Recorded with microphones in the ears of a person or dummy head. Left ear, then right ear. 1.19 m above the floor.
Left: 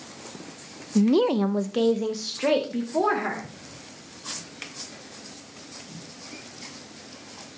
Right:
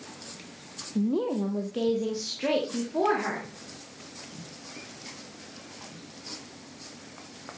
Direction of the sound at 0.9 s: 70° left (ahead or behind).